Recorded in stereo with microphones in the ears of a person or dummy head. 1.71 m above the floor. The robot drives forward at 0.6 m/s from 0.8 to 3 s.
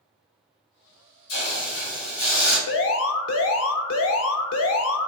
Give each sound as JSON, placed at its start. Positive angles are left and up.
{"t": 1.3, "sound": "a hiss", "side_deg": 65, "distance_m": 1.7}
{"t": 2.7, "sound": "an alarm", "side_deg": 65, "distance_m": 0.6}